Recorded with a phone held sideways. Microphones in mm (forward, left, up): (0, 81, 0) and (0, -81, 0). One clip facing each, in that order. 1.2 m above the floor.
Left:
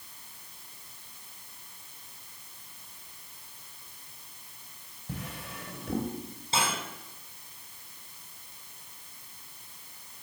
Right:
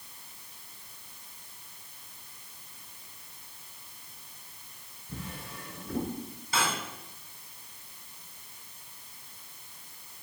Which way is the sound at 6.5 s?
25° left (ahead or behind).